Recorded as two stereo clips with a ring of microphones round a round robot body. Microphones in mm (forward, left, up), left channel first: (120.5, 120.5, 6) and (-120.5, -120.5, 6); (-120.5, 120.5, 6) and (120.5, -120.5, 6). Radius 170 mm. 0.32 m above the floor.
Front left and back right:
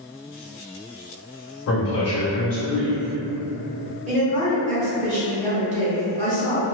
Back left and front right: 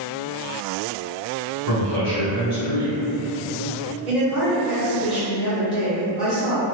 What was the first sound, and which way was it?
A man speaking, 5° left.